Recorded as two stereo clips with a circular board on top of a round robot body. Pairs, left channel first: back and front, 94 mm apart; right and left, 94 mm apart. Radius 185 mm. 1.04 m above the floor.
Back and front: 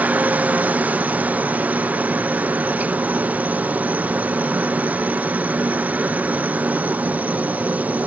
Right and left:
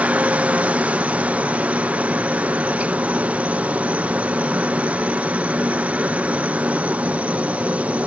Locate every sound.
0.0 s a helicopter: 40° left